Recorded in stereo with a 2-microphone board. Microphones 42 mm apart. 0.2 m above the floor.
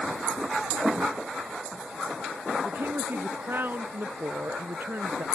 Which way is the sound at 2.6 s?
55° right (ahead or behind).